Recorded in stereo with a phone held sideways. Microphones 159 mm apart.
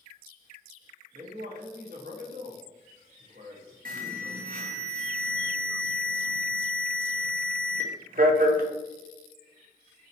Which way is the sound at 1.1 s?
80° right.